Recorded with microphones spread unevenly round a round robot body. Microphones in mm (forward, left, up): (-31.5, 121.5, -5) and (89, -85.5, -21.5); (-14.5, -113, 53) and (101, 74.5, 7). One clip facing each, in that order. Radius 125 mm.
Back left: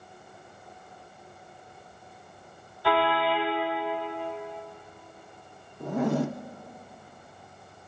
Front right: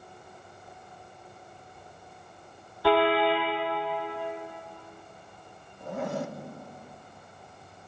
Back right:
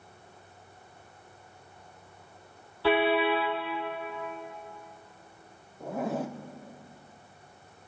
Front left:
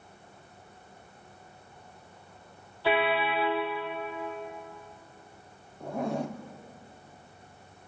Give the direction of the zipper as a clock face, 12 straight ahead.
7 o'clock.